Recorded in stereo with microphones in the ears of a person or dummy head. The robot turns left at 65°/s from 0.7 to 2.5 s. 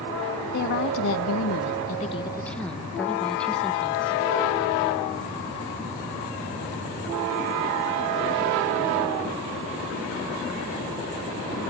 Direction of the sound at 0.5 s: 125° left.